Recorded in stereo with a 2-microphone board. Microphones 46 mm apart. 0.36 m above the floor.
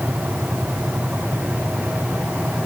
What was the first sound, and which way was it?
Only background noise.